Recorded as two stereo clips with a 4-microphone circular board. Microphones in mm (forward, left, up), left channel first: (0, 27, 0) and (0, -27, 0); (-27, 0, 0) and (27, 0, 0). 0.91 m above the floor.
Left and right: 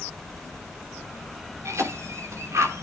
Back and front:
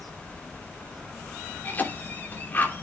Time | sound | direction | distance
1.6 | a cough | 125° right | 3 m